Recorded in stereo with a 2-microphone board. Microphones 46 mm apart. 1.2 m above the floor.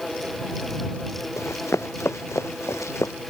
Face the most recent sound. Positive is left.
turn(degrees=75)  # may be behind; listen again after turning